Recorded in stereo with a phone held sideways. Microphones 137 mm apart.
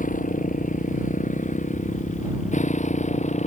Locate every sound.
0.0 s a motorcycle: 75° left (ahead or behind); by 3.5 s 60° left (ahead or behind)